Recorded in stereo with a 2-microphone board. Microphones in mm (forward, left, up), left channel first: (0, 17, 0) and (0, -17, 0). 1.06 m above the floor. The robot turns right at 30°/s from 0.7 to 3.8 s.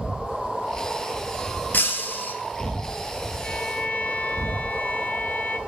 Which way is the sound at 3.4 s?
60° left (ahead or behind).